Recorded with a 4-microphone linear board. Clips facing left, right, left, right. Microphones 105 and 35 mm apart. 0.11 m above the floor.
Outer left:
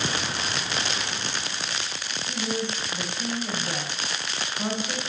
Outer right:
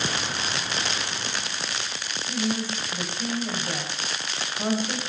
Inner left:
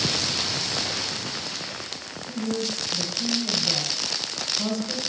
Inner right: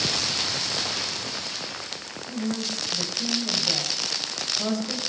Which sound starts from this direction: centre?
A woman speaking, at 2.3 s.